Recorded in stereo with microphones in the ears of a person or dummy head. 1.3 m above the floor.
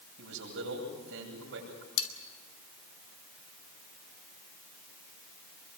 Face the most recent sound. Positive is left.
turn(degrees=80)